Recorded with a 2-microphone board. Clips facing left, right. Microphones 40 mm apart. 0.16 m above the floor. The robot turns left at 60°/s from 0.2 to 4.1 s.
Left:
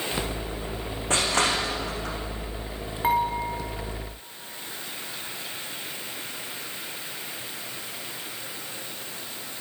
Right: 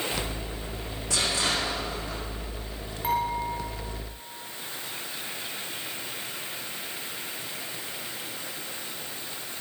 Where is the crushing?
40° left (ahead or behind), 7.5 m; by 2.2 s 75° left (ahead or behind), 7.5 m.